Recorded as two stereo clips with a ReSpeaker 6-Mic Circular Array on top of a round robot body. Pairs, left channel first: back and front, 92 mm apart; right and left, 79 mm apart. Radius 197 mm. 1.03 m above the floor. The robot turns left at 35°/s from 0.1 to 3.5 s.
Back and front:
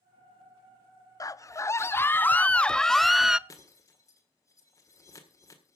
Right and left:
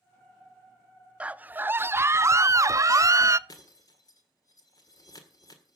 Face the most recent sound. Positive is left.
turn(degrees=-125)